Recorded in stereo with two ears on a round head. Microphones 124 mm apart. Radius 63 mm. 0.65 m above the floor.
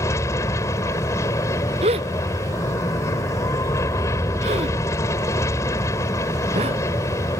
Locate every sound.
0.0 s an aircraft: 20° left (ahead or behind)
1.8 s a gasp: 45° right (ahead or behind)